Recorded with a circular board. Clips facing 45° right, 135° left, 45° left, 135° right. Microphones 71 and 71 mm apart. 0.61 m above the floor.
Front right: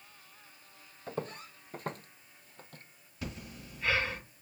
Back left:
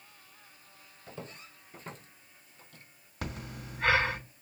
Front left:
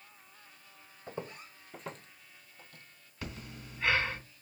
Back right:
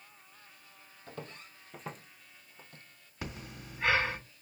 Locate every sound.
1.1 s footsteps: 15° right, 1.1 m; by 2.8 s 80° right, 1.2 m
3.2 s breathing: 155° left, 2.5 m